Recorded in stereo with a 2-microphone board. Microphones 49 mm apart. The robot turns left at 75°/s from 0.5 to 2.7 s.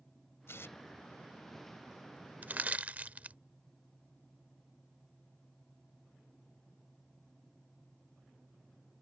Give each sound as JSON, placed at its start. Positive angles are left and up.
{"t": 0.5, "sound": "tearing paper", "side_deg": 60}
{"t": 2.4, "sound": "crushing", "side_deg": -40}